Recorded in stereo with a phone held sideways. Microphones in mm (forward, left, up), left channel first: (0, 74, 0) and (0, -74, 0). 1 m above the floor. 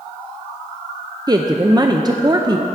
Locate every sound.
1.3 s a woman speaking: 30° right (ahead or behind), 0.6 m